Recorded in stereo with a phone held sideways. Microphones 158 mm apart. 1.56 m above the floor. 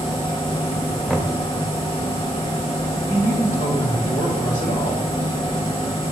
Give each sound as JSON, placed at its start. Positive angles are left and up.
{"t": 0.0, "sound": "a machine running", "side_deg": 35, "distance_m": 1.6}
{"t": 1.1, "sound": "knocking", "side_deg": 5, "distance_m": 0.7}
{"t": 3.1, "sound": "a man speaking", "side_deg": 45, "distance_m": 1.9}